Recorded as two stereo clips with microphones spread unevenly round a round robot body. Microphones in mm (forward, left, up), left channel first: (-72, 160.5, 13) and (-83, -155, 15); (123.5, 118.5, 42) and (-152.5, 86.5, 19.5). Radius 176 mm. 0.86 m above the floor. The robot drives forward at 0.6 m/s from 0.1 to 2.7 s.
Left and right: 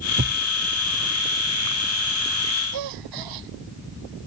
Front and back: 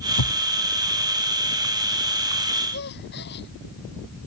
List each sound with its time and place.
0.2 s a thud: 20° right
2.7 s a gasp: 55° right